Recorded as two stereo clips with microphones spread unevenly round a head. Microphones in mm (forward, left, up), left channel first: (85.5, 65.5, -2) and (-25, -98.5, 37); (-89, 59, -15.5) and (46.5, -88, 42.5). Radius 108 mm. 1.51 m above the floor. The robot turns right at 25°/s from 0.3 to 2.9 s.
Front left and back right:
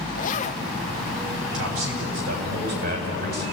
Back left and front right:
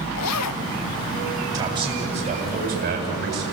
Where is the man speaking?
120° right, 8.5 m; by 3.4 s 85° right, 8.5 m.